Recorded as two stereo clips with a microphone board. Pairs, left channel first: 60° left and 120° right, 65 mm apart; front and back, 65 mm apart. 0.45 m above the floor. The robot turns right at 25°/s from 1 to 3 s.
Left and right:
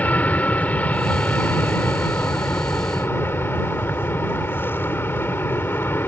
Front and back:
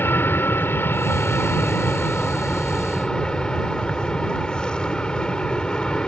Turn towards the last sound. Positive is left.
turn(degrees=65)